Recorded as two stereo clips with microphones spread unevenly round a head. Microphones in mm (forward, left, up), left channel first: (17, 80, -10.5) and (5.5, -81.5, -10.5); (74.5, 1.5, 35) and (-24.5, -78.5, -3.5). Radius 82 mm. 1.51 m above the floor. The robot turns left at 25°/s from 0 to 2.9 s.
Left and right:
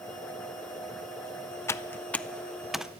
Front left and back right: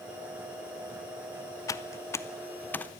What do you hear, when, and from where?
1.7 s typing on a keyboard: 20° left, 0.6 m; by 2.9 s 10° right, 0.6 m